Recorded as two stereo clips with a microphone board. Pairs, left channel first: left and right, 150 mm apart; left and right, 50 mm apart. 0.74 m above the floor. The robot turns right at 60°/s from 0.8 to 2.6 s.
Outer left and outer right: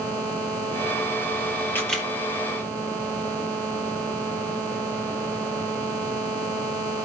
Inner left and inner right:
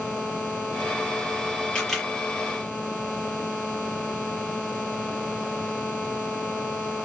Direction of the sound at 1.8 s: 15° left (ahead or behind).